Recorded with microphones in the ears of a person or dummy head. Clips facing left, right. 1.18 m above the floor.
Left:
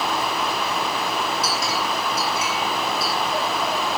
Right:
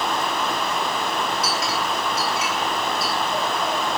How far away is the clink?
About 8 m.